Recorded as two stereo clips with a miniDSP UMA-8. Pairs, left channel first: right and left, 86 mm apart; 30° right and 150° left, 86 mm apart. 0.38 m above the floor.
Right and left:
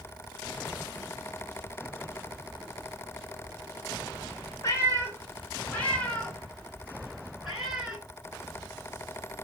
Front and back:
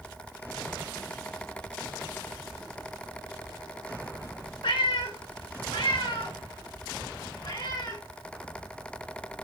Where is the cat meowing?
35° right, 2 m; by 8.0 s 10° left, 2.5 m.